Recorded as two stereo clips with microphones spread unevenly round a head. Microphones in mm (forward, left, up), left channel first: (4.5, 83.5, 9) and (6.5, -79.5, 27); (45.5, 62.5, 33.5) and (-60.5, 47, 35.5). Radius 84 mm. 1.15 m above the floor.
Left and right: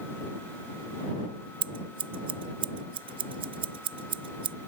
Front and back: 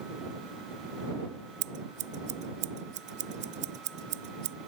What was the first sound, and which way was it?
Scissors, 145° right.